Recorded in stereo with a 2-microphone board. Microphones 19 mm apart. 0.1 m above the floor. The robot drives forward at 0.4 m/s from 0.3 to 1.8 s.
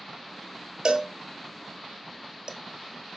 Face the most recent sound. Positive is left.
turn(degrees=-45)  # may be behind; listen again after turning